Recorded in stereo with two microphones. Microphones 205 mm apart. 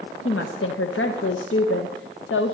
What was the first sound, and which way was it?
A woman speaking, 80° left.